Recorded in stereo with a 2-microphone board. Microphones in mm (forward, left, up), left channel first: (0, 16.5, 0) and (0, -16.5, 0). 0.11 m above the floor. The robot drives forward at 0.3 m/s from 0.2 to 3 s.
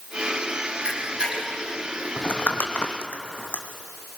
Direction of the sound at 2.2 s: 70° left (ahead or behind).